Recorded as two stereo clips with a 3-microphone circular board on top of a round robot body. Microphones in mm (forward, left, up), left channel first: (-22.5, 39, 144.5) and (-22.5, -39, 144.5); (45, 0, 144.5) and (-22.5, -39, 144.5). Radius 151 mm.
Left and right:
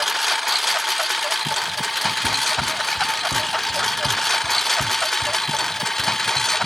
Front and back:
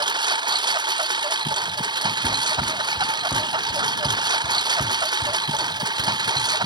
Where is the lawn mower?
Straight behind; by 6.7 s 175° left.